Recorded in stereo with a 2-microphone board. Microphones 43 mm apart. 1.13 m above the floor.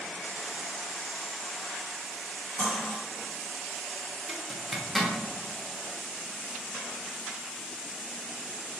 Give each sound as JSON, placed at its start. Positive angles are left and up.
{"t": 2.6, "sound": "cutlery clinking", "side_deg": 55, "distance_m": 1.4}
{"t": 4.3, "sound": "a zipper", "side_deg": 0, "distance_m": 0.5}